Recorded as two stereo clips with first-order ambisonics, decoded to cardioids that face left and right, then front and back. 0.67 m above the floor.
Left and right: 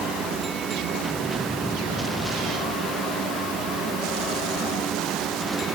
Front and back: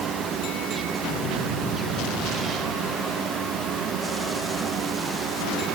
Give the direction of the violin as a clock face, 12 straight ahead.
No violin in this recording.